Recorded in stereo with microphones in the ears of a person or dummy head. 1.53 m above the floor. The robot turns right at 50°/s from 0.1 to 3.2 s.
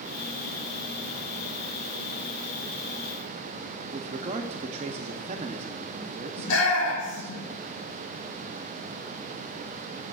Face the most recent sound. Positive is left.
turn(degrees=85)